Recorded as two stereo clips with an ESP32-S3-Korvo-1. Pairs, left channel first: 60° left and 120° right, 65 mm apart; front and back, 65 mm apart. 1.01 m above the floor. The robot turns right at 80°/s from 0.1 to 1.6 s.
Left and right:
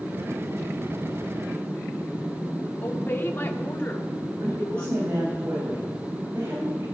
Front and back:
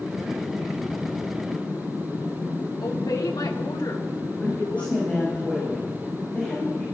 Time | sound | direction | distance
2.8 | a woman speaking | 5° left | 2.5 m
4.4 | a woman speaking | 70° right | 5.5 m